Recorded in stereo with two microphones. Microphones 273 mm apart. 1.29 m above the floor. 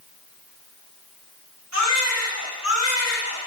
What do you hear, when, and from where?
1.7 s a baby crying: 75° right (ahead or behind), 6.5 m